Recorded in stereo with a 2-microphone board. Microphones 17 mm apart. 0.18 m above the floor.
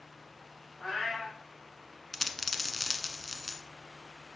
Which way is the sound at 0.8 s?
25° left (ahead or behind).